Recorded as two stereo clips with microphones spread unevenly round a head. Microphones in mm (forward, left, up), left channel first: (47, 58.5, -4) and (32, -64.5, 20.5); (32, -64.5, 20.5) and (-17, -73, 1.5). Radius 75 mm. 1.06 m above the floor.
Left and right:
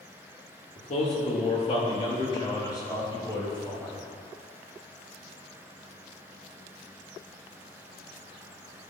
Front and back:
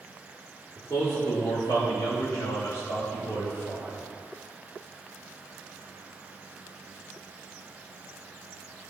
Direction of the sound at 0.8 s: 80° left.